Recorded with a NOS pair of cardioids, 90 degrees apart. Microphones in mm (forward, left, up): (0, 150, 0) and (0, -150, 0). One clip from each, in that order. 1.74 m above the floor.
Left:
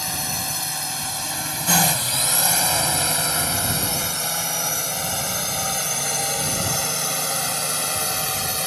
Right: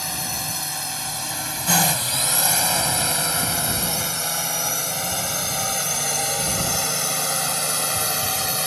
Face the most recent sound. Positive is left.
turn(degrees=-15)